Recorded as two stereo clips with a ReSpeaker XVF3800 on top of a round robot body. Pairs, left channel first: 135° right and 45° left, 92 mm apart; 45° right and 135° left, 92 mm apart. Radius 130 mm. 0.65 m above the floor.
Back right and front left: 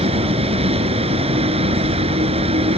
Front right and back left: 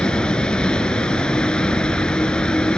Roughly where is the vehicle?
Ahead left.